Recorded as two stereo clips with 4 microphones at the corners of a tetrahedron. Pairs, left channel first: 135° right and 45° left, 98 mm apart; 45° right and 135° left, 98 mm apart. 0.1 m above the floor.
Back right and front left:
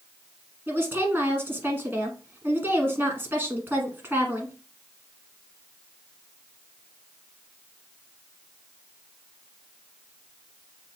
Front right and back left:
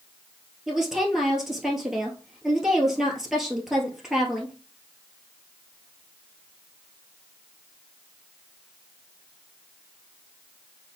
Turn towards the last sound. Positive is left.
turn(degrees=55)